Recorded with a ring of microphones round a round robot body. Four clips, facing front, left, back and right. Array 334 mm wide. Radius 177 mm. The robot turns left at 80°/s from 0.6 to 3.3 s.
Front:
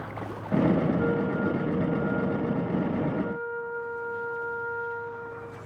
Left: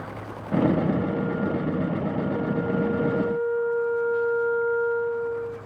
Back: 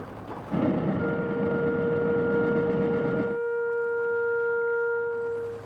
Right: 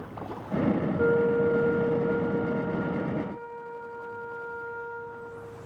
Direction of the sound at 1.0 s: 90° right.